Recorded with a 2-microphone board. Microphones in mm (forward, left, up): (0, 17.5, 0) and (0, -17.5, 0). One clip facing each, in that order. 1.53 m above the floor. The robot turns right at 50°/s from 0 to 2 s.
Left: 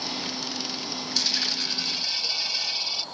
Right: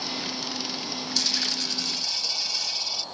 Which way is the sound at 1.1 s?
10° left (ahead or behind).